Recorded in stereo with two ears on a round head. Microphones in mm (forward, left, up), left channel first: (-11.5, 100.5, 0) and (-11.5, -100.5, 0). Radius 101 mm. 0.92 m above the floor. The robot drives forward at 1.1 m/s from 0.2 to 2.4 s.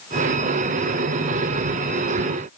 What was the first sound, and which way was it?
Only background noise.